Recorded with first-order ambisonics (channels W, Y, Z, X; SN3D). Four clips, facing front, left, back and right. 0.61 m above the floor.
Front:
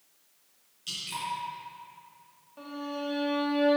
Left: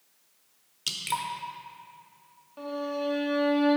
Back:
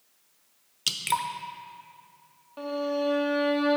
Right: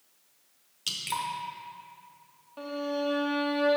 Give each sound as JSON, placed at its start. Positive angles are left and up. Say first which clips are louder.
{"t": 0.9, "sound": "dripping", "louder": "left 1 dB, back 8 dB", "azimuth_deg": 170, "distance_m": 0.8}
{"t": 2.6, "sound": "a violin", "louder": "even, back 8 dB", "azimuth_deg": -160, "distance_m": 1.1}